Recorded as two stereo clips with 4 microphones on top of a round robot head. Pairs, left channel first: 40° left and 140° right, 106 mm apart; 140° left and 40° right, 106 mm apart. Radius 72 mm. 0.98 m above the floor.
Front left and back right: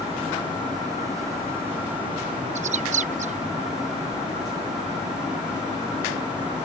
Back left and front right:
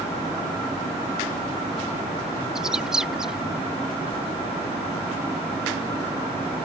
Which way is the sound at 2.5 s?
125° right.